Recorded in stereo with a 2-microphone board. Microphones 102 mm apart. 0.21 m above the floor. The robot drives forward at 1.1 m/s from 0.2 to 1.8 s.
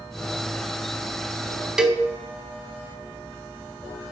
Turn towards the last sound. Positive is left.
turn(degrees=-5)  # may be behind; listen again after turning